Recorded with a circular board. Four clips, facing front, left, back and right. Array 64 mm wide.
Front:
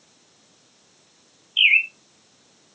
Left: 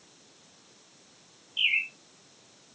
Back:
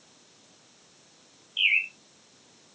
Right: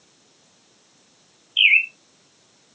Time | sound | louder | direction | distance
1.6 | a bird | right 11 dB, front 7 dB | 55° right | 1.6 m